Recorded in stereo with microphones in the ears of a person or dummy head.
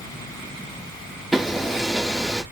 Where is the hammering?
Centre (ahead or behind), 1.6 m.